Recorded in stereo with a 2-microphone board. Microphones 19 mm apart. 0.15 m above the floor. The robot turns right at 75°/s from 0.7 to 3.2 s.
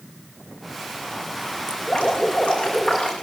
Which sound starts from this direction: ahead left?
Dripping, at 1.7 s.